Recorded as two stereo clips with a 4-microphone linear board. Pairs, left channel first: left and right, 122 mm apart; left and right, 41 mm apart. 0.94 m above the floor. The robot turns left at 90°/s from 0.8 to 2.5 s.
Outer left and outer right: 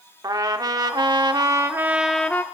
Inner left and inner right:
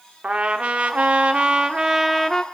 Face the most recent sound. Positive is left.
turn(degrees=145)